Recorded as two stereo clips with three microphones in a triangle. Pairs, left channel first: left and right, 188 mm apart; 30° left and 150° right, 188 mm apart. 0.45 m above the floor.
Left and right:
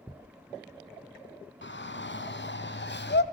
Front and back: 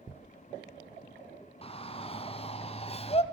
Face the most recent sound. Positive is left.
turn(degrees=85)